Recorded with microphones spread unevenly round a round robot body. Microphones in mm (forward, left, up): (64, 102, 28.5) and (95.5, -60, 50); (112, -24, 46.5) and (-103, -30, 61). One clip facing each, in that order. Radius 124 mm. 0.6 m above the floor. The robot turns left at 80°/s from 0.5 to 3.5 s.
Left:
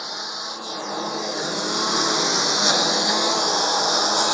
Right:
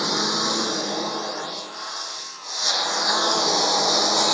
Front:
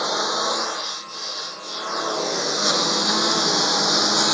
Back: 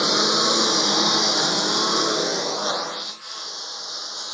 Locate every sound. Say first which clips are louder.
0.0 s a lawn mower: right 10 dB, back 3 dB; 120° right; by 4.3 s straight ahead